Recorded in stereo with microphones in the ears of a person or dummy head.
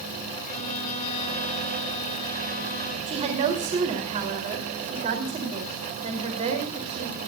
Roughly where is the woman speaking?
Right.